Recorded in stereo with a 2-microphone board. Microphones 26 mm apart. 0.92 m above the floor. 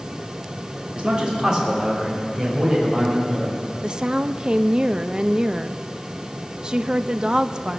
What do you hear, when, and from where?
0.9 s a man speaking: 40° right (ahead or behind), 2.5 m; by 3.5 s 15° right (ahead or behind), 6 m
3.8 s a woman speaking: 30° right (ahead or behind), 0.5 m